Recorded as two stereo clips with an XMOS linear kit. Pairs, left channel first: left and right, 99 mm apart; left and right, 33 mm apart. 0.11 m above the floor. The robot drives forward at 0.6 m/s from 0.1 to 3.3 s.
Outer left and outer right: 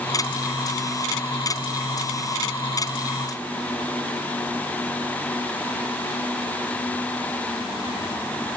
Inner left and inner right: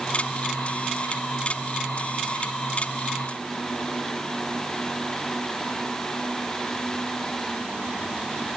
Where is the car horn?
I don't hear a car horn.